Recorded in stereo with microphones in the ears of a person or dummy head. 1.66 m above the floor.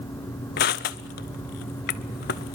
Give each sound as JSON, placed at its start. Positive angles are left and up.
{"t": 0.6, "sound": "crushing", "side_deg": 50, "distance_m": 0.6}